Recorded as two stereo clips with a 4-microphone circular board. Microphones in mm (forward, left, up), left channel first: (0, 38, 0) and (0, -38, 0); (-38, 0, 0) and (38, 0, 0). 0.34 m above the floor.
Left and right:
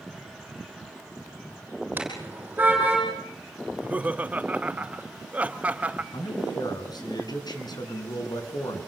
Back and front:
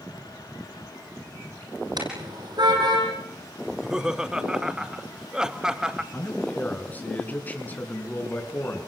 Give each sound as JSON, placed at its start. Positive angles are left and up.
{"t": 2.0, "sound": "a car horn", "azimuth_deg": -25, "distance_m": 8.0}
{"t": 3.7, "sound": "laughter", "azimuth_deg": -65, "distance_m": 0.9}
{"t": 6.1, "sound": "a man speaking", "azimuth_deg": 110, "distance_m": 4.5}